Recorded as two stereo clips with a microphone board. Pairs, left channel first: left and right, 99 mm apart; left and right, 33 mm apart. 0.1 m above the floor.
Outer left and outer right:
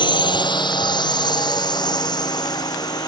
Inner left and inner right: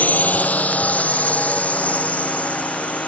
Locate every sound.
0.0 s a drone: 50° left (ahead or behind); by 3.1 s 40° left (ahead or behind)